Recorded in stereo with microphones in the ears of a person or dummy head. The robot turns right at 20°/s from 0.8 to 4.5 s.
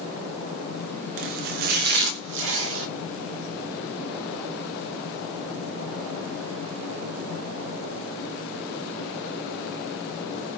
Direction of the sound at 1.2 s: 125° right.